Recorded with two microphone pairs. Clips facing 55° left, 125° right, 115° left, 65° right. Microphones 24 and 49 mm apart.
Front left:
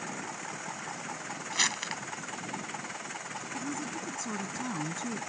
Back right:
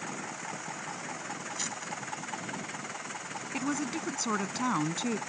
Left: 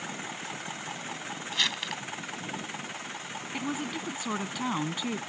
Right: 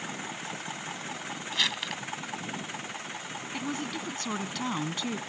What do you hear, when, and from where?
1.5 s crumpling: 25° left
3.5 s a woman speaking: 170° right